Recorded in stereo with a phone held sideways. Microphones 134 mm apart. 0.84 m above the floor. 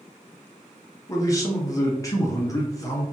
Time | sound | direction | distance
1.1 | a man speaking | 25° left (ahead or behind) | 0.7 m